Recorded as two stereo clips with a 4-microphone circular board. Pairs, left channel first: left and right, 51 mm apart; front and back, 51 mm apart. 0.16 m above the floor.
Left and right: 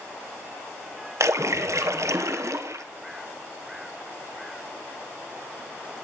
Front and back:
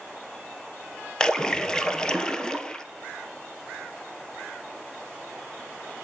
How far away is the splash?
About 1.0 m.